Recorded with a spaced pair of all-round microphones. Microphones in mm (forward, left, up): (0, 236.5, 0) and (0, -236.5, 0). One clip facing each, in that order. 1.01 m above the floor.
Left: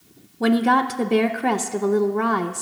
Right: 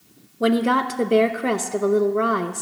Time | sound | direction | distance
0.4 | a woman speaking | 10° left (ahead or behind) | 0.6 m